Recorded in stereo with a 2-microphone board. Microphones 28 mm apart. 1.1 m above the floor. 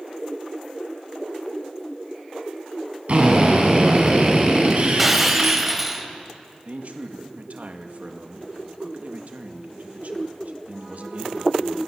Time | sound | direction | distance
3.1 | a drill | 50° right (ahead or behind) | 5.5 m
5.0 | breaking glass | 5° right (ahead or behind) | 2 m
6.7 | a man speaking | 65° right (ahead or behind) | 1.9 m